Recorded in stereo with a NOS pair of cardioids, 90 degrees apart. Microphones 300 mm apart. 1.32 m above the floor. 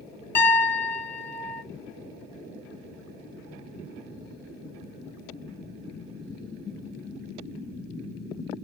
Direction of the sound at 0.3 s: 10° left.